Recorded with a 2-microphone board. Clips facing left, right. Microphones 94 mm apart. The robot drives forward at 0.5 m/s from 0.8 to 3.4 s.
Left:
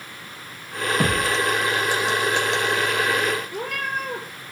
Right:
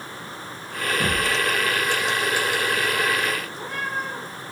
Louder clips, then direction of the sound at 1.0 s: Left 2 dB; 70° left (ahead or behind).